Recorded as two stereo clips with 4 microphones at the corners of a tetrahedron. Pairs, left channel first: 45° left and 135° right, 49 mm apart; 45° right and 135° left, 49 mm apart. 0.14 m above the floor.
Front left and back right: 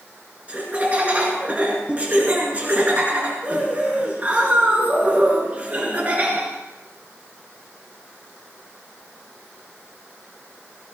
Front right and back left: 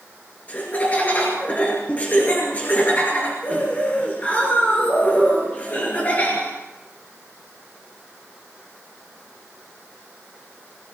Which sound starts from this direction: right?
Laughter, at 0.5 s.